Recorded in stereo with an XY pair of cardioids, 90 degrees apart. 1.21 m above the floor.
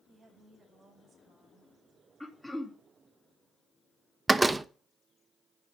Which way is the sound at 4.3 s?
25° right.